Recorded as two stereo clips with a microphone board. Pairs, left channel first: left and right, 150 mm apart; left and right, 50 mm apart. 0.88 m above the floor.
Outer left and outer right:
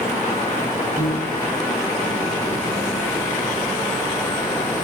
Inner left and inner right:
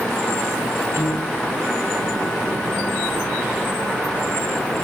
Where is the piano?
60° right (ahead or behind), 1.8 m.